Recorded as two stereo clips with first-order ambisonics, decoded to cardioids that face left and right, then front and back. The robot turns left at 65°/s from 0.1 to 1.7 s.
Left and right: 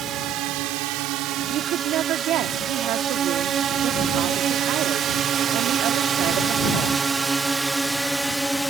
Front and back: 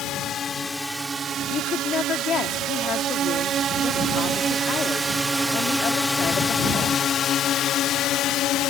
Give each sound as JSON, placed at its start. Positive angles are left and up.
{"t": 0.0, "sound": "a drone", "azimuth_deg": -45}
{"t": 1.5, "sound": "a woman speaking", "azimuth_deg": -45}